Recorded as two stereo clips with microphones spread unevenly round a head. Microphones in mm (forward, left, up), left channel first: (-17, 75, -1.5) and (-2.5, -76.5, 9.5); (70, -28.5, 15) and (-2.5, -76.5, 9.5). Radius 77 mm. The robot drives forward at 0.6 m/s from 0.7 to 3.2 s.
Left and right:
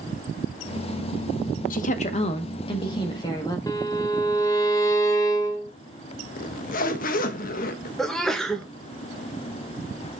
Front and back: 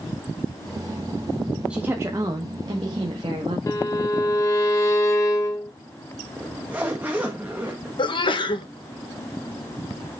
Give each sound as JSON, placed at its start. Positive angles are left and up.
{"t": 1.7, "sound": "a woman speaking", "azimuth_deg": 130, "distance_m": 0.7}
{"t": 3.7, "sound": "a violin", "azimuth_deg": 35, "distance_m": 0.7}
{"t": 6.4, "sound": "a zipper", "azimuth_deg": 135, "distance_m": 0.9}
{"t": 8.0, "sound": "a sneeze", "azimuth_deg": 10, "distance_m": 1.4}